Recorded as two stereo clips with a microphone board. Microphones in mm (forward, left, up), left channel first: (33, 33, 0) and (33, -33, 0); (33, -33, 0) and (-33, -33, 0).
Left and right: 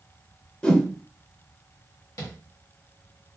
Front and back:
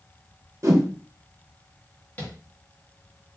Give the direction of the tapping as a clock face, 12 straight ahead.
10 o'clock.